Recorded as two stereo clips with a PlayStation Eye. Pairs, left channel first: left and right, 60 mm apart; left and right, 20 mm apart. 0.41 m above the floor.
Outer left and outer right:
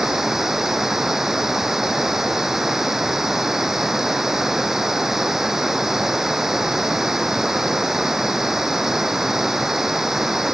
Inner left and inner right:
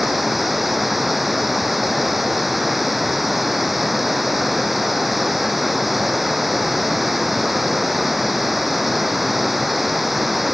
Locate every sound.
0.0 s running water: 5° right (ahead or behind)